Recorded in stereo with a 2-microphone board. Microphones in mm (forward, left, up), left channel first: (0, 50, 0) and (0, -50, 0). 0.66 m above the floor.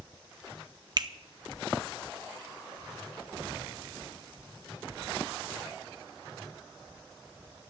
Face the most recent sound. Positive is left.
turn(degrees=-45)  # may be behind; listen again after turning